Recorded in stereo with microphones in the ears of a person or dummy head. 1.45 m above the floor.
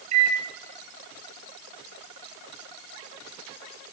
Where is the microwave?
40° right (ahead or behind), 0.7 m.